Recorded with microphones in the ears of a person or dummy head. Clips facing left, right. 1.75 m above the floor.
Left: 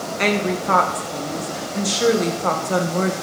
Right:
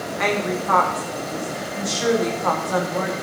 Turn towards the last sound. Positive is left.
turn(degrees=35)  # may be behind; listen again after turning